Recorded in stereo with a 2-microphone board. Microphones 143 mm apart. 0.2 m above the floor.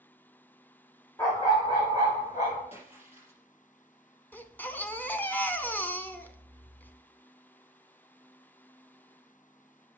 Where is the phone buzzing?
No phone buzzing in this recording.